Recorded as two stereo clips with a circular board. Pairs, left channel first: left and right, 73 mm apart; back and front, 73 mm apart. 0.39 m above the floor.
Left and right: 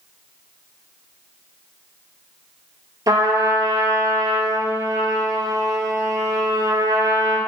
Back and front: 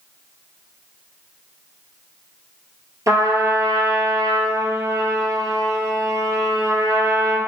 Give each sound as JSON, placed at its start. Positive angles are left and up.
{"t": 3.1, "sound": "a trumpet", "azimuth_deg": -50, "distance_m": 1.3}